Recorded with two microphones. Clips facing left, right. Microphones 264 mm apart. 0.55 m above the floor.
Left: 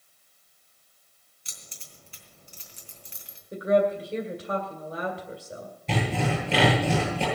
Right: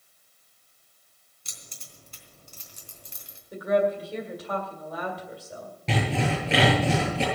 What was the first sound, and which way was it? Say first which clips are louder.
Keys jangling: right 1 dB; 50° right (ahead or behind).